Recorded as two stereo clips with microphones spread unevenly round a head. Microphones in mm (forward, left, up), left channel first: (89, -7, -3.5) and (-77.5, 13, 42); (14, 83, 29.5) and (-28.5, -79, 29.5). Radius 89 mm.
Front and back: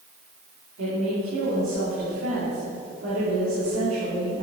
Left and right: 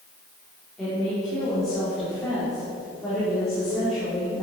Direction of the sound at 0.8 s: 165° left.